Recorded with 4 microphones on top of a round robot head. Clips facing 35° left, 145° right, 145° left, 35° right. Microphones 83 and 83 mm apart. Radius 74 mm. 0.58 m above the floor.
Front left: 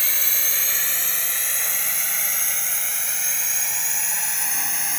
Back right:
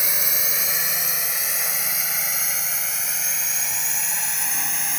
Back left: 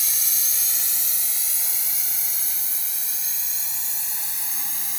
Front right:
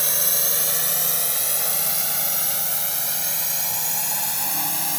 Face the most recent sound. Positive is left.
turn(degrees=-55)